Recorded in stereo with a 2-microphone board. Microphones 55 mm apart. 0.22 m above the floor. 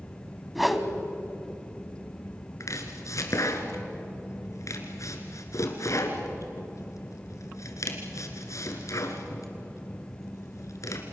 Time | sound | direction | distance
0.6 | a whoosh | centre (ahead or behind) | 1.5 m
2.6 | chopping | 70° left (ahead or behind) | 2.5 m